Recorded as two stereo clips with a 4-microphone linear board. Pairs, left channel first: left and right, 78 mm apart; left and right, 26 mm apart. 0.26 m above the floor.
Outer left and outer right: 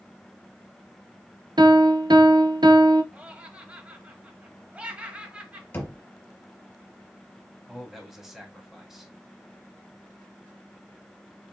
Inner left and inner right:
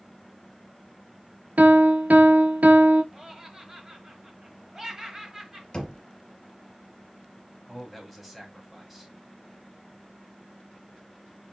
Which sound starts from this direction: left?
Knocking, at 5.7 s.